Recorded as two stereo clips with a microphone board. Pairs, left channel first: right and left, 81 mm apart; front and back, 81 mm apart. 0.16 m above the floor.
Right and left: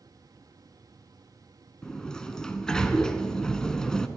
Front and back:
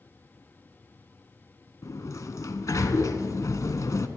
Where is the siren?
No siren in this recording.